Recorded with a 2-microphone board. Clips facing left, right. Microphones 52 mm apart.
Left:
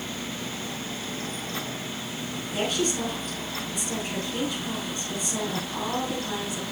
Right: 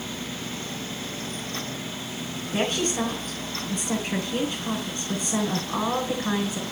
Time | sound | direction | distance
2.5 | a woman speaking | 40° right (ahead or behind) | 3 m